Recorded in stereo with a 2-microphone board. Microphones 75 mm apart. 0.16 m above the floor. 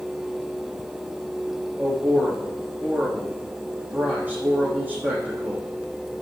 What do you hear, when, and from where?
1.8 s a man speaking: 20° right (ahead or behind), 7 m